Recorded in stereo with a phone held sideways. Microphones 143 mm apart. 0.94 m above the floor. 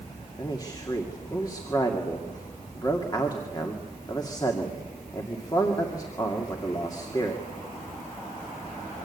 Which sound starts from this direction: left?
A man speaking, at 0.4 s.